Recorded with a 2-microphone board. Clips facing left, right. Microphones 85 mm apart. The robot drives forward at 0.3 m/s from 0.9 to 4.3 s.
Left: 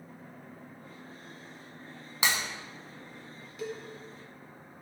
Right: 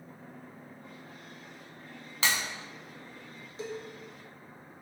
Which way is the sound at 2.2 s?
15° left (ahead or behind).